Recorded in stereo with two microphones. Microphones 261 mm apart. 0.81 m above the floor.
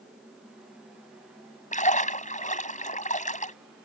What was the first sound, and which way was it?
A splash, 30° left (ahead or behind).